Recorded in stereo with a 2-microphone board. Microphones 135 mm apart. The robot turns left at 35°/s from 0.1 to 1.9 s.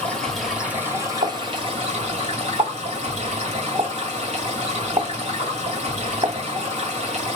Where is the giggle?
I don't hear a giggle.